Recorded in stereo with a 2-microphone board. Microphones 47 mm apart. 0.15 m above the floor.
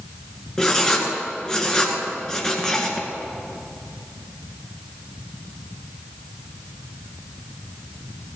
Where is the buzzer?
I don't hear a buzzer.